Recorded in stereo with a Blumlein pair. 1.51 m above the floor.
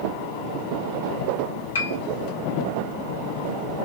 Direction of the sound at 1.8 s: 65° left.